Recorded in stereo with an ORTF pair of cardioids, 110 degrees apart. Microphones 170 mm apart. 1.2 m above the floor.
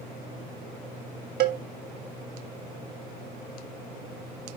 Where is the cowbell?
70° right, 1.7 m.